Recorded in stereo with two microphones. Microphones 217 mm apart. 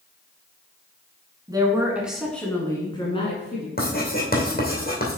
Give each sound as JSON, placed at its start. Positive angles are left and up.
{"t": 1.5, "sound": "a woman speaking", "side_deg": -20, "distance_m": 1.6}
{"t": 3.8, "sound": "writing", "side_deg": 45, "distance_m": 2.5}